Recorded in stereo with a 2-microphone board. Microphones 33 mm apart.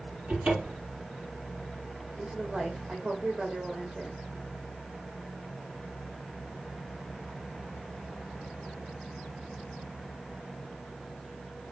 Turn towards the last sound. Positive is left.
turn(degrees=-40)  # may be behind; listen again after turning